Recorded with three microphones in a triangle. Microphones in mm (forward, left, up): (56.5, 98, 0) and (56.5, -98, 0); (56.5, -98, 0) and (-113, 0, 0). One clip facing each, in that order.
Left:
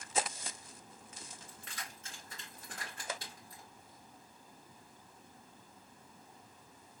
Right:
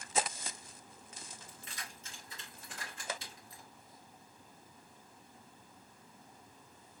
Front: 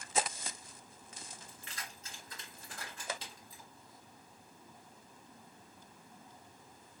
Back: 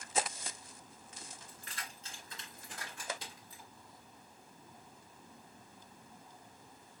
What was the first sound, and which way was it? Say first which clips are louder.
Keys jangling: left 1 dB, even; 105° left.